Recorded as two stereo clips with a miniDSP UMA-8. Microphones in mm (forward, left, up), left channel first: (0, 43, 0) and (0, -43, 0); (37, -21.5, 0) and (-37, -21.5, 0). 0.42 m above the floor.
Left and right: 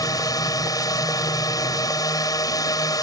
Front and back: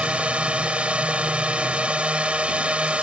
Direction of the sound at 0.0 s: 110° left.